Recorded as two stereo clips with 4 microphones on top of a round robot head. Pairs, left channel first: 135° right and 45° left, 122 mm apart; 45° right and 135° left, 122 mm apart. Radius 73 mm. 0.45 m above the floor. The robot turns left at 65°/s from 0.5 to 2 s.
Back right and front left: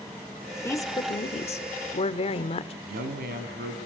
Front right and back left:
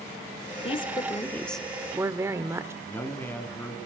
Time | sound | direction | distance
0.6 | a woman speaking | 70° right | 1.2 m
2.8 | a man speaking | 35° left | 3.5 m